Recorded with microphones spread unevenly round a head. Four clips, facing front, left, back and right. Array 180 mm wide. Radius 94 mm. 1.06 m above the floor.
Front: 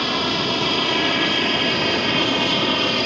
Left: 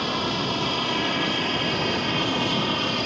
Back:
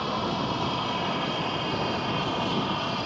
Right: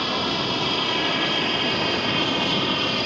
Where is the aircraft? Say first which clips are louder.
Right 1 dB, front 5 dB; 10° right; by 3.1 s 5° right.